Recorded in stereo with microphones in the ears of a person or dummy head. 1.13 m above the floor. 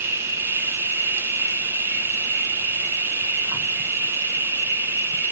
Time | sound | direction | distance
0.0 | an insect | 10° right (ahead or behind) | 0.9 m